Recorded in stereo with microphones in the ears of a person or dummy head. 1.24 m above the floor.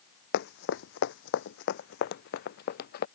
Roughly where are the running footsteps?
Left.